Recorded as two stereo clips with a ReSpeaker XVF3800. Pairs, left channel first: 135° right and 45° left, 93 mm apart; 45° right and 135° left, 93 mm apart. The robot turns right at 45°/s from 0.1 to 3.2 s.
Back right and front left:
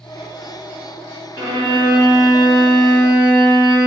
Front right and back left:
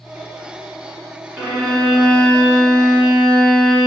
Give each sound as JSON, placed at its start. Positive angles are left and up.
{"t": 1.4, "sound": "a violin", "azimuth_deg": -135, "distance_m": 1.5}